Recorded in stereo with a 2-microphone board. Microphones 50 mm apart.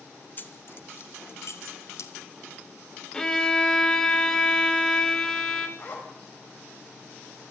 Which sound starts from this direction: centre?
A violin, at 3.1 s.